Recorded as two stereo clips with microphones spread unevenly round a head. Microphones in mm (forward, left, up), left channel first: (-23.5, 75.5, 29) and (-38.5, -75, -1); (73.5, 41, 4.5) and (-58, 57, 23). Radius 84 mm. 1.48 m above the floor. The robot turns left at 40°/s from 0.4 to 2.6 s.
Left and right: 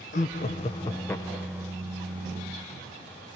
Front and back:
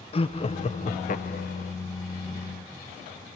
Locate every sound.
0.1 s laughter: 35° left, 1.4 m; by 1.7 s 20° right, 1.4 m